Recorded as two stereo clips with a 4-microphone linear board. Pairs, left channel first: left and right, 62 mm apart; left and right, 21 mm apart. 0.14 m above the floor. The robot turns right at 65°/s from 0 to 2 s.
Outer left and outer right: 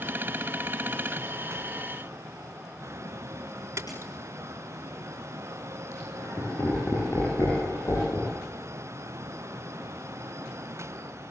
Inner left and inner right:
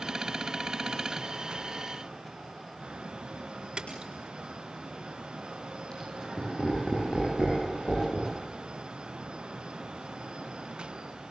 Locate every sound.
3.8 s a splash: 50° right (ahead or behind), 5.5 m
5.9 s laughter: 45° left (ahead or behind), 8 m